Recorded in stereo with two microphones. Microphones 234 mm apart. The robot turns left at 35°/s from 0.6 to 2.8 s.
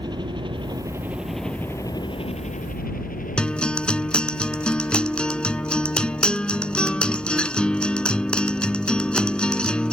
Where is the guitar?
5° left (ahead or behind).